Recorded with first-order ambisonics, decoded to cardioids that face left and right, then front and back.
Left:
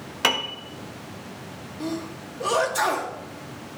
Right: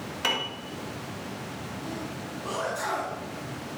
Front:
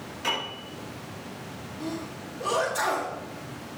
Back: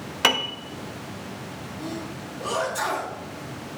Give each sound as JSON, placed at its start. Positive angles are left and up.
{"t": 0.2, "sound": "a piano", "azimuth_deg": 150, "distance_m": 1.2}
{"t": 1.8, "sound": "a sneeze", "azimuth_deg": 85, "distance_m": 1.5}